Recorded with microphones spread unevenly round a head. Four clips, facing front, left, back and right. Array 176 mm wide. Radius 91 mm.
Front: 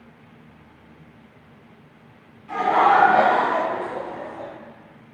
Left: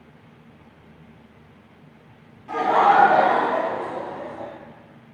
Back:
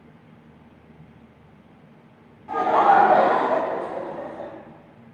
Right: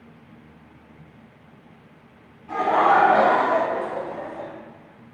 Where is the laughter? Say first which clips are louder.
Left 1 dB, even; 150° left, 0.8 m; by 4.5 s 125° right, 1.2 m.